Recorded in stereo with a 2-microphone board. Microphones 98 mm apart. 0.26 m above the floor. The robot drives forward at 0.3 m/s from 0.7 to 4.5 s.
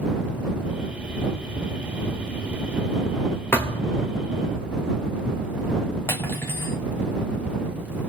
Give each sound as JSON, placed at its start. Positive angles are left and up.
{"t": 3.5, "sound": "a thud", "side_deg": 20, "distance_m": 1.6}
{"t": 6.1, "sound": "cutlery clinking", "side_deg": 25, "distance_m": 0.9}